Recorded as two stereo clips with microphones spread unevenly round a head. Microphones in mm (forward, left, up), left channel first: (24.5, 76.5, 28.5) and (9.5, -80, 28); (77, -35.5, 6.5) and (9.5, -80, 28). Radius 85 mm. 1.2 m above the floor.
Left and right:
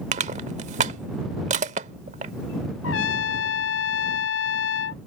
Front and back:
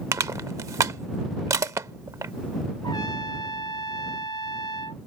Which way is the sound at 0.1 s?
135° right.